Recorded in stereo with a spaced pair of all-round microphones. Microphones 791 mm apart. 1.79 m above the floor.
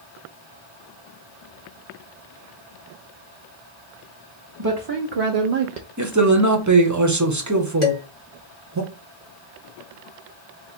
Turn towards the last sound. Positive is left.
turn(degrees=60)  # may be behind; listen again after turning